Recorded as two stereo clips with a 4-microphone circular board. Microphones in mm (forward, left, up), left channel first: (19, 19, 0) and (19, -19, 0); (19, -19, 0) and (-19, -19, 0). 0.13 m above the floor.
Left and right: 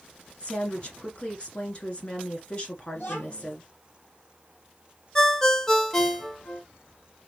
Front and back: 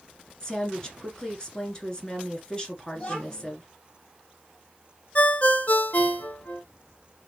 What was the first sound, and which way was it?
A woman speaking, 55° left.